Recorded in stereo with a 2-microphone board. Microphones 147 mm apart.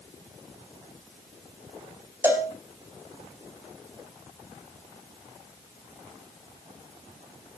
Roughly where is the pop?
No pop in this recording.